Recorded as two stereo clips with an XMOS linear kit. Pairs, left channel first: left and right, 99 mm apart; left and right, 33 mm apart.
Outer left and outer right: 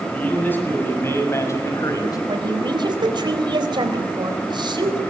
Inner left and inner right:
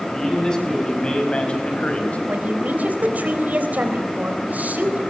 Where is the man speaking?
15° left (ahead or behind), 6.5 m; by 2.2 s 40° left (ahead or behind), 4.5 m.